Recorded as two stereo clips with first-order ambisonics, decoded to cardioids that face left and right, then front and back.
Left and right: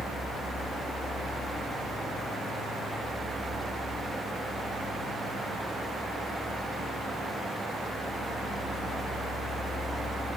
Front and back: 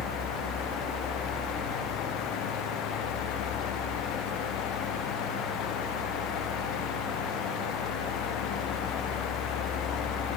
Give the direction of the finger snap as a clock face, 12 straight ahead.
No finger snap in this recording.